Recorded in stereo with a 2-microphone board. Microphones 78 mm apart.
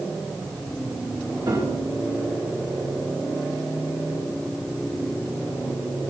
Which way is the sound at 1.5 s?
65° right (ahead or behind).